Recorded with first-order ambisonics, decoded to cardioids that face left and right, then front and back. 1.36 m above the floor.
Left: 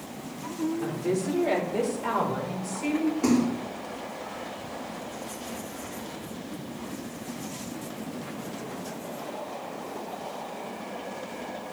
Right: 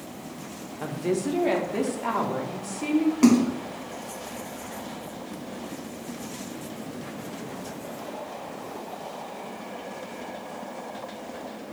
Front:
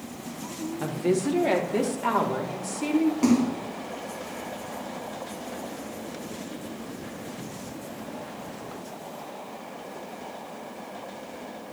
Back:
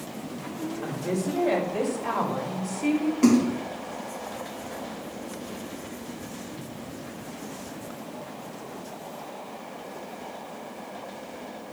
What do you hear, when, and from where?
0.8 s a woman speaking: 35° right, 2.5 m; by 3.1 s 25° right, 4 m
3.2 s a splash: 95° right, 2.5 m